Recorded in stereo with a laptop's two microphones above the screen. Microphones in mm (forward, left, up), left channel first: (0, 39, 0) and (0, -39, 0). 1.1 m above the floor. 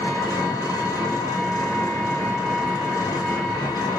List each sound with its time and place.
0.0 s an engine running: 55° left (ahead or behind), 0.9 m